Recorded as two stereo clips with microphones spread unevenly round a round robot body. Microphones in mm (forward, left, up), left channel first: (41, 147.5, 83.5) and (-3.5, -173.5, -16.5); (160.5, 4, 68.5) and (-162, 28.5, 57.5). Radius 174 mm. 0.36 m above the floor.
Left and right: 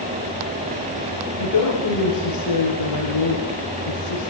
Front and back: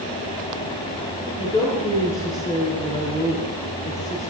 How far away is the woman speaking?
About 6.5 m.